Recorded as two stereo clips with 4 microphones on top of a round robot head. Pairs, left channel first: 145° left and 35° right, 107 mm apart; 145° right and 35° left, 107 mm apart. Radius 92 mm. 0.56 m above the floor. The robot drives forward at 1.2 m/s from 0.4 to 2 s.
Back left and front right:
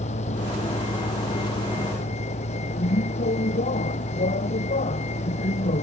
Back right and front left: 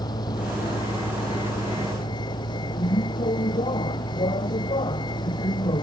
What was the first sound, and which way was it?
A vehicle, 160° left.